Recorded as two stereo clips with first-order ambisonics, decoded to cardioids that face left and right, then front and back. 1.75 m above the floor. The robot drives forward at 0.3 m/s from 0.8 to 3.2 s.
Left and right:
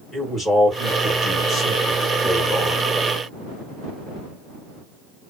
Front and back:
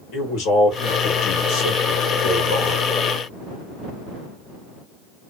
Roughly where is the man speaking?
Ahead.